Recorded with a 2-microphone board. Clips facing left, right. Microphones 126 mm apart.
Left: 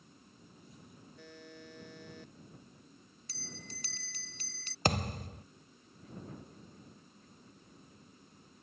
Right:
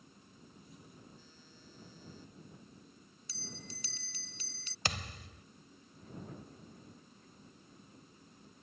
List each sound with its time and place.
1.2 s a buzzer: 75° left (ahead or behind)
3.3 s a bell: 55° left (ahead or behind)
4.8 s a thud: 45° left (ahead or behind)